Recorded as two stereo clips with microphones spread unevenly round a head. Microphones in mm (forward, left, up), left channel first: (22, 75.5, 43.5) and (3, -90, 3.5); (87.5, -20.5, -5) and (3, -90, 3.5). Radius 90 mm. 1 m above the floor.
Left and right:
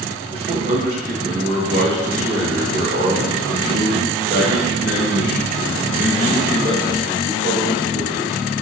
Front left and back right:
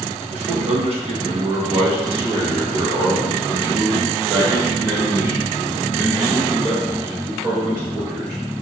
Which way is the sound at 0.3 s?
140° right.